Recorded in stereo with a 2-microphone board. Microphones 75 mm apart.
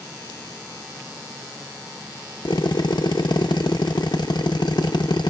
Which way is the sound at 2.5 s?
70° left (ahead or behind).